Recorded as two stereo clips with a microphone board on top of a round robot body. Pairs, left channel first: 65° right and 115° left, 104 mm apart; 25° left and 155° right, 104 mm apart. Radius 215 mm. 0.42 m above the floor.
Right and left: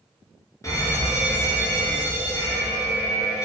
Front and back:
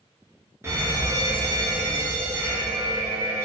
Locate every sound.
0.6 s a fire alarm: 105° right, 2.5 m